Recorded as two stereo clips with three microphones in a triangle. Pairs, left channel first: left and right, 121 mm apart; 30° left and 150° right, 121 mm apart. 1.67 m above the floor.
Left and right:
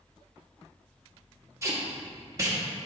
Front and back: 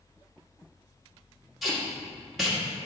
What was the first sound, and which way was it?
Tape being pulled, 60° right.